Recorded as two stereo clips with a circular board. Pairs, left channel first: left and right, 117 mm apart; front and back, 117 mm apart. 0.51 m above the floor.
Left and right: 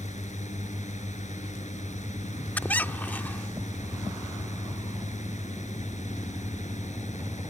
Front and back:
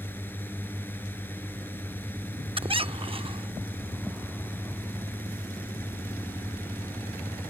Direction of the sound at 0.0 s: 75° left.